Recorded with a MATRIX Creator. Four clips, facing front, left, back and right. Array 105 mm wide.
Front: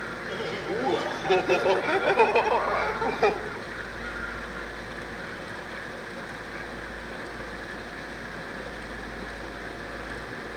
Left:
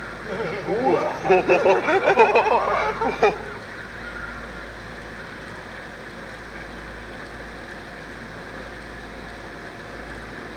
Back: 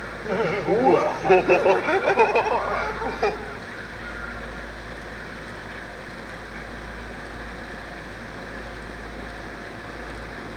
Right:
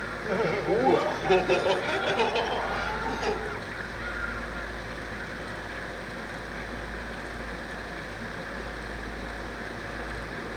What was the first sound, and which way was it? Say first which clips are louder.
Laughter: even, back 11 dB; 170° right.